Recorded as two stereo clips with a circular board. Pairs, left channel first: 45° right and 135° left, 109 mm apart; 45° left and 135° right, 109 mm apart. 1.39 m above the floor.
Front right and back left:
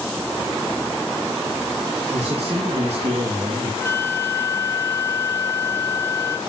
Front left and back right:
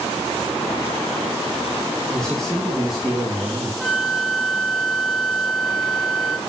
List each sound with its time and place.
2.1 s a man speaking: 130° left, 2.5 m; by 3.7 s 145° left, 2.5 m
3.8 s a flute: 45° right, 1.3 m